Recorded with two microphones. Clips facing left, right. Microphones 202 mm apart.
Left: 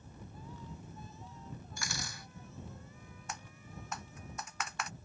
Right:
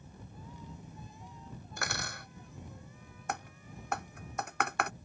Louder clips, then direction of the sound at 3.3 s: Right 8 dB; 70° right (ahead or behind).